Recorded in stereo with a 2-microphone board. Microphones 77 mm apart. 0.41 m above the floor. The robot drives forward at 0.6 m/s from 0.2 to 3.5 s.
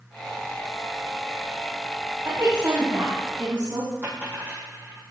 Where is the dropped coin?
25° right (ahead or behind), 5.5 m.